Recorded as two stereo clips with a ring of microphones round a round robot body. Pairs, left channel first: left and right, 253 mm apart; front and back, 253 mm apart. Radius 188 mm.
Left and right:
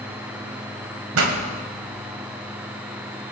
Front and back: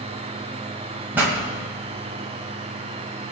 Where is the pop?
95° right, 2.0 m.